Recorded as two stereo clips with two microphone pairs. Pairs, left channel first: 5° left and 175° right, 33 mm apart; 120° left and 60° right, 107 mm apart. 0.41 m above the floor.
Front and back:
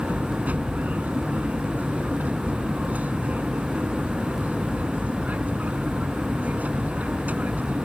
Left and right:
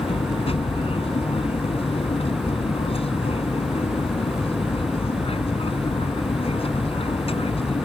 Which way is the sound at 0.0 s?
150° left.